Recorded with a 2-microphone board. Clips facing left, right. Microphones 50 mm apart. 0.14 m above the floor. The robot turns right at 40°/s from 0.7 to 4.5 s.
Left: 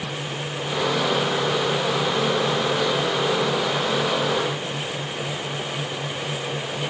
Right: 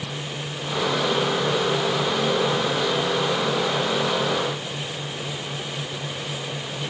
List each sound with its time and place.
Only background noise.